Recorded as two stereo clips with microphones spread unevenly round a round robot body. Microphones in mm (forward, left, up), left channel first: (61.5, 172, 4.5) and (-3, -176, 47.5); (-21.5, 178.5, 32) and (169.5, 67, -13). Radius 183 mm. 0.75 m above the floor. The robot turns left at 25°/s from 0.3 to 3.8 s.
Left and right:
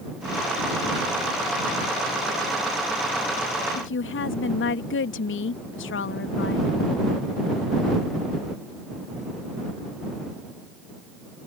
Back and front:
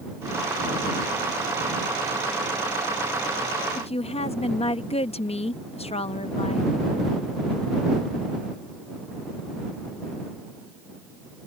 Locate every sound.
3.8 s a woman speaking: 85° left